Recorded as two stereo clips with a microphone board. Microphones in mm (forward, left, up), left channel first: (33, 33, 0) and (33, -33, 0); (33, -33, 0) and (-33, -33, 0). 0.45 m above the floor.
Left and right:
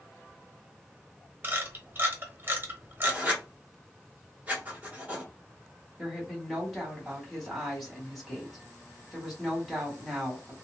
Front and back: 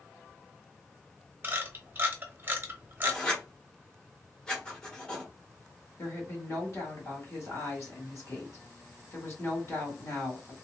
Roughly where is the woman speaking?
Ahead.